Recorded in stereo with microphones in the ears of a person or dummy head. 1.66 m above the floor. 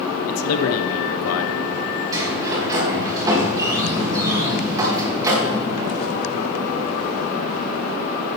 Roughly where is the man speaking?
Left.